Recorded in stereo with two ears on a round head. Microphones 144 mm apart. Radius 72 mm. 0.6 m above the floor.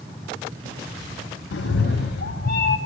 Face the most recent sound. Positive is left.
turn(degrees=65)  # may be behind; listen again after turning